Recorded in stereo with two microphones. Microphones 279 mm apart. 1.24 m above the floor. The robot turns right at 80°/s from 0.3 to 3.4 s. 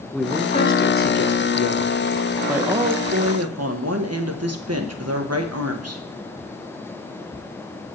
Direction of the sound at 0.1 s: Straight ahead.